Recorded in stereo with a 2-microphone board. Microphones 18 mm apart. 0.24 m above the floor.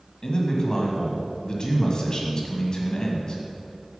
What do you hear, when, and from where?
0.2 s a man speaking: 45° left (ahead or behind), 1.7 m